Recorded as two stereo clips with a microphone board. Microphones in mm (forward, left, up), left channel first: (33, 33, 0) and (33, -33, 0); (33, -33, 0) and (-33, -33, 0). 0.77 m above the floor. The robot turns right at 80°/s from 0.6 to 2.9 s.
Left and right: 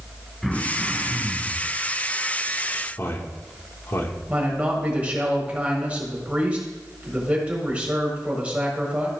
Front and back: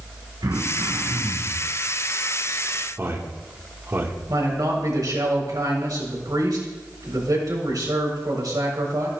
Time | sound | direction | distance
0.4 | throat clearing | 175° left | 2 m
3.0 | a man speaking | 135° left | 1.9 m
4.3 | a man speaking | 160° right | 4.5 m